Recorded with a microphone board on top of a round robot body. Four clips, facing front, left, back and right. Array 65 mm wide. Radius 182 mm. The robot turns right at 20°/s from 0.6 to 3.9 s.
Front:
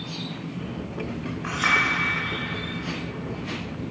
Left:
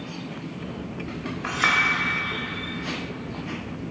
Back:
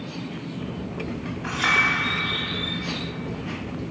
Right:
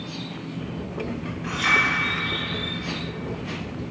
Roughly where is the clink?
Left.